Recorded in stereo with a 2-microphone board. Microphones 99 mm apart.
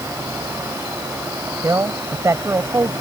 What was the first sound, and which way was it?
A man speaking, 30° right (ahead or behind).